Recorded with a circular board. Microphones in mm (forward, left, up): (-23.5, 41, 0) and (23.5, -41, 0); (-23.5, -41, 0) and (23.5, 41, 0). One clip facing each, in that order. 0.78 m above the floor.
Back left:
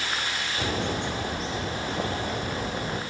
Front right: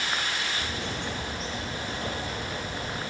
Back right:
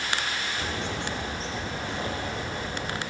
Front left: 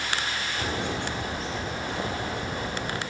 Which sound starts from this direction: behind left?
A bird, at 0.6 s.